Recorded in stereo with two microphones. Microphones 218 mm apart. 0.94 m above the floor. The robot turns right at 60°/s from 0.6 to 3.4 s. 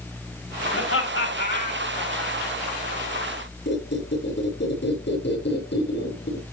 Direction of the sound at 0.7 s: 80° left.